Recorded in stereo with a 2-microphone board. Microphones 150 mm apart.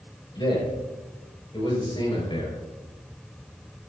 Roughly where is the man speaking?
Left.